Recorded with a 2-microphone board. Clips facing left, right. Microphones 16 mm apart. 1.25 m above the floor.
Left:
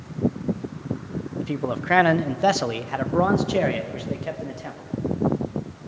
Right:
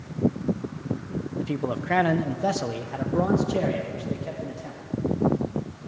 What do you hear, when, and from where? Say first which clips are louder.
1.4 s a man speaking: left 2 dB; 10° left (ahead or behind), 0.9 m; by 4.9 s 45° left (ahead or behind), 2.5 m